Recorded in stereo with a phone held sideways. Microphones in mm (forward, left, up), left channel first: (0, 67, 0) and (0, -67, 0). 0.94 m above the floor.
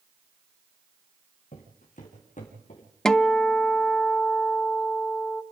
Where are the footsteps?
70° left (ahead or behind), 4 m; by 2.9 s 65° left (ahead or behind), 5 m.